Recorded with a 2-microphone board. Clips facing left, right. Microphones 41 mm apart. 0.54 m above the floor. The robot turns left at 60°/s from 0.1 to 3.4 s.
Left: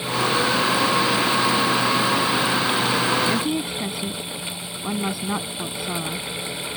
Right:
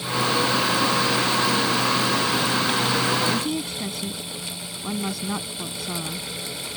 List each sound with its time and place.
3.3 s a woman speaking: 20° left (ahead or behind); by 6.3 s 15° left (ahead or behind)